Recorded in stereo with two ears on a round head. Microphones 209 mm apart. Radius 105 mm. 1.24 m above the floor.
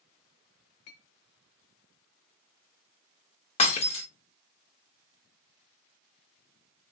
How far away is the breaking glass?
About 0.7 m.